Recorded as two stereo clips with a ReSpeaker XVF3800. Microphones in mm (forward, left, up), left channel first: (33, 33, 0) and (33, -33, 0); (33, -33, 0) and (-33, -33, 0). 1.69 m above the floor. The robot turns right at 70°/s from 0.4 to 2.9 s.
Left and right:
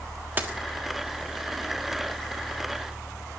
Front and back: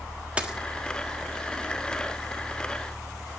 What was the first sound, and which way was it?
A dropped coin, 120° right.